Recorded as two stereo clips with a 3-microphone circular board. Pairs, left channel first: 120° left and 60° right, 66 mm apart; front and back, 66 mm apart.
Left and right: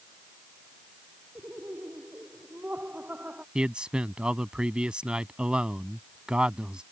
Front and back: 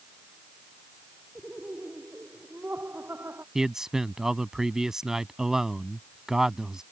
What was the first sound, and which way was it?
Laughter, 120° right.